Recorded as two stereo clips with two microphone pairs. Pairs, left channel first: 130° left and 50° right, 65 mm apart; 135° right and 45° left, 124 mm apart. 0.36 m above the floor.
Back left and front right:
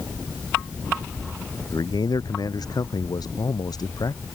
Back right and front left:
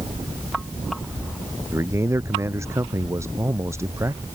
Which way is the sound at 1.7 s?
115° left.